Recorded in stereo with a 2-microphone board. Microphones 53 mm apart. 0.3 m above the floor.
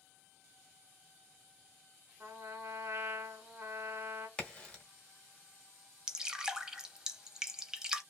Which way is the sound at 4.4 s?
20° left (ahead or behind).